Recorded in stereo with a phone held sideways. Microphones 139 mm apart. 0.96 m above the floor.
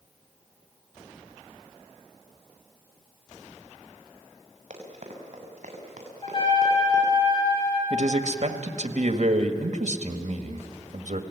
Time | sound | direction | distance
4.7 | running footsteps | 55° right (ahead or behind) | 7 m
6.2 | a trumpet | 35° left (ahead or behind) | 8 m
7.9 | a man speaking | 60° right (ahead or behind) | 1.7 m